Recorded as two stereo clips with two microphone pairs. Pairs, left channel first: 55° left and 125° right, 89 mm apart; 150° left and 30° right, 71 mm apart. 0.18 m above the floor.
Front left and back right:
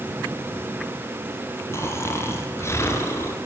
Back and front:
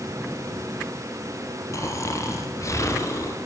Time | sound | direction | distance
1.7 | snoring | 110° left | 3.5 m